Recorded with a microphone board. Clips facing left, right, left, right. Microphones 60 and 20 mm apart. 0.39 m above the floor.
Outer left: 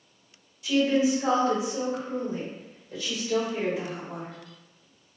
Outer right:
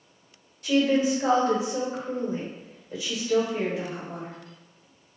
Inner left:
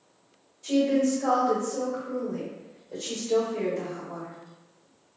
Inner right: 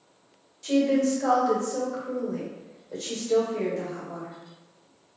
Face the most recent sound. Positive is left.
turn(degrees=10)  # may be behind; listen again after turning